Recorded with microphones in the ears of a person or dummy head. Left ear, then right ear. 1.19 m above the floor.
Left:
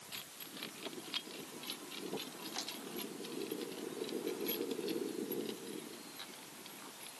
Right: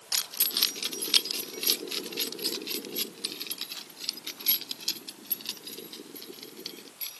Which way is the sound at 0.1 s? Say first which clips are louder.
Right 20 dB; 45° right (ahead or behind).